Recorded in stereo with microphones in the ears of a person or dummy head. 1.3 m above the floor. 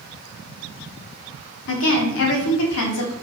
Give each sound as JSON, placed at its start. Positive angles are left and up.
{"t": 1.7, "sound": "a woman speaking", "side_deg": 75, "distance_m": 0.6}